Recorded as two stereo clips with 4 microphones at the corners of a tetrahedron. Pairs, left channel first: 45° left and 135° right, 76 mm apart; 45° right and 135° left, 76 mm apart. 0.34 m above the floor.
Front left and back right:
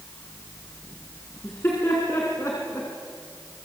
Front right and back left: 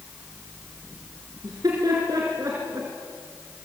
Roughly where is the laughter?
Left.